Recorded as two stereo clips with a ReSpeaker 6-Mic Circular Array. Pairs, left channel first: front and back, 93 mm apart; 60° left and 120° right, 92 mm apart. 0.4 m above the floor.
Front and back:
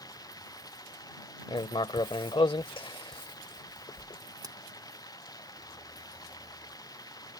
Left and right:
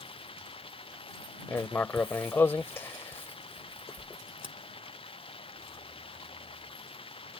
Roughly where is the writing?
Ahead.